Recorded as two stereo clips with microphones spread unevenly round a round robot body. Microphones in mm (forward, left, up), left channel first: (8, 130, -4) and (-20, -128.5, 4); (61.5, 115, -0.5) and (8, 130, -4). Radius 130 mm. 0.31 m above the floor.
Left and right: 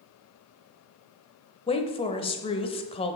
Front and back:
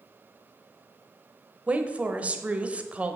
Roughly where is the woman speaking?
Behind left.